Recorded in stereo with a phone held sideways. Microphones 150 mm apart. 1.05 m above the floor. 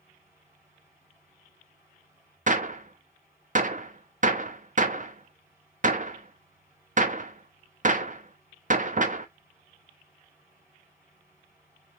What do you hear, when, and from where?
0.0 s a fan: 15° right (ahead or behind), 2.5 m
2.5 s a gunshot: 55° right (ahead or behind), 0.7 m